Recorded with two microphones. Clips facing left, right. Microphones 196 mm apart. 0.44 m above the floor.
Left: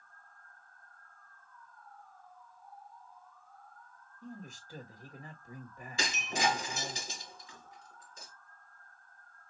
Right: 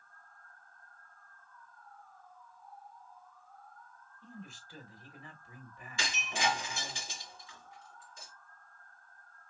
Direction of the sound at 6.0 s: 40° left (ahead or behind).